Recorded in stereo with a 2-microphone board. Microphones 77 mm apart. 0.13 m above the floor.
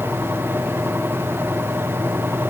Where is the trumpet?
No trumpet in this recording.